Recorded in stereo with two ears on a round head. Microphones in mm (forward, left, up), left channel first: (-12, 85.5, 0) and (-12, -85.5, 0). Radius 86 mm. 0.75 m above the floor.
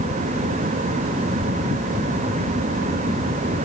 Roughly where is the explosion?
I don't hear an explosion.